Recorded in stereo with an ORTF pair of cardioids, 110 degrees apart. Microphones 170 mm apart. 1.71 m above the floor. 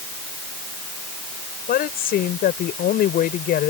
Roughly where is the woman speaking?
Ahead left.